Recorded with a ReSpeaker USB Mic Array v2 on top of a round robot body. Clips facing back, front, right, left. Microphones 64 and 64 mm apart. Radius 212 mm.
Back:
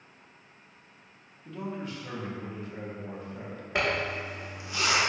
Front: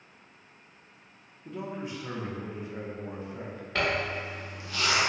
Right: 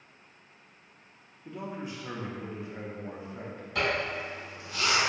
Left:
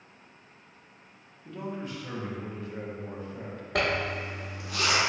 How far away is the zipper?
About 0.8 m.